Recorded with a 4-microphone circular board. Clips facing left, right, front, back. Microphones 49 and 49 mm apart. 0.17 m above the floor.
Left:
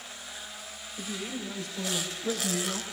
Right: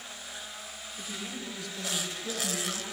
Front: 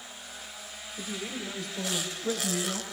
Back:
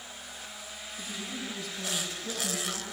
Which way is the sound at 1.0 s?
35° left.